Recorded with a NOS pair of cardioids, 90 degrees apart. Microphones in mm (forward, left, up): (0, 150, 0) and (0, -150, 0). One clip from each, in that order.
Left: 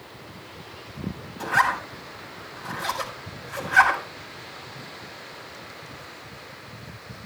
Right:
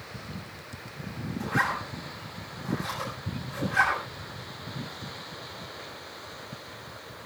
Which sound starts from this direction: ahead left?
A zipper, at 1.4 s.